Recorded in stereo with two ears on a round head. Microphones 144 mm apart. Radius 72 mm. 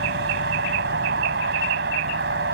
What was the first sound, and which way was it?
A vehicle, 75° right (ahead or behind).